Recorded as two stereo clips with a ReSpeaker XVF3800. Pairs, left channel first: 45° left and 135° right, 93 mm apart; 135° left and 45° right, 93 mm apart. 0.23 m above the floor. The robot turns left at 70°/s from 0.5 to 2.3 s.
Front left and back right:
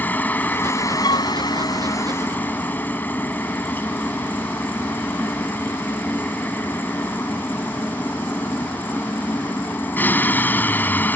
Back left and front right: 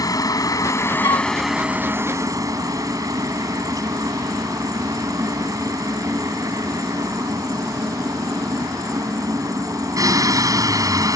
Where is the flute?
90° left; by 1.3 s 70° left.